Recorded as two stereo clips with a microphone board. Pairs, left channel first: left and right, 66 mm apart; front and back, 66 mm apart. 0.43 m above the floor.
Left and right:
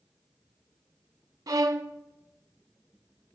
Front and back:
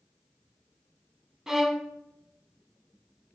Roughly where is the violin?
Right.